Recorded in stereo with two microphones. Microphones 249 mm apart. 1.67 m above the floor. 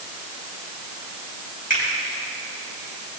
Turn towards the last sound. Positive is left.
turn(degrees=35)  # may be behind; listen again after turning